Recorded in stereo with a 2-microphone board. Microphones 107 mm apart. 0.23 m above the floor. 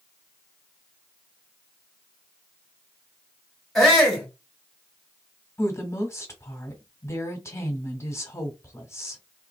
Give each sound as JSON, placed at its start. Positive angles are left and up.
{"t": 3.8, "sound": "a shout", "side_deg": 0, "distance_m": 1.8}
{"t": 5.6, "sound": "a woman speaking", "side_deg": 25, "distance_m": 1.2}